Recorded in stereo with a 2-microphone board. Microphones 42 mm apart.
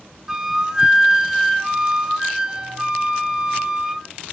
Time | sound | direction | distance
0.3 | a flute | 15° right (ahead or behind) | 1.0 m